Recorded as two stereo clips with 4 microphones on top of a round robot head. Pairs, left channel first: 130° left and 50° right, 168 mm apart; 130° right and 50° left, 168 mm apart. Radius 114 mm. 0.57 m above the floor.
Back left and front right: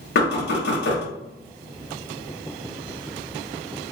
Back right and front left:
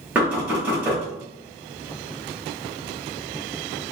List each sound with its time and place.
0.1 s knocking: 130° left, 1.1 m